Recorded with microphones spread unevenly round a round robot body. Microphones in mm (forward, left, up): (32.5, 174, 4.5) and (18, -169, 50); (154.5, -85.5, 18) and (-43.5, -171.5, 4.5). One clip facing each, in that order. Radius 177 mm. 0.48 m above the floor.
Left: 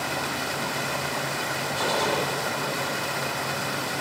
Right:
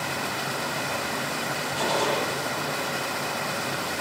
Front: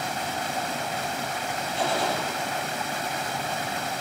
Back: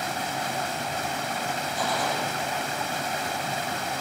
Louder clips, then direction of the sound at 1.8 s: Even, front 3 dB; 40° right.